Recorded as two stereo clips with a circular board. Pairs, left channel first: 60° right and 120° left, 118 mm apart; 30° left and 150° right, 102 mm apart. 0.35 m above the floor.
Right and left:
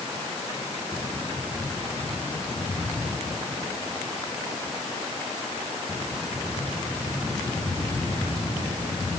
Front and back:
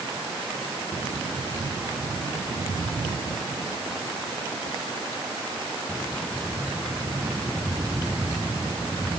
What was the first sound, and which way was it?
Only background noise.